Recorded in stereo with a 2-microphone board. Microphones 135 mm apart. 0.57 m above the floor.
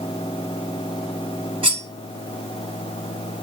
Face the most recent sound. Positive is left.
turn(degrees=-40)  # may be behind; listen again after turning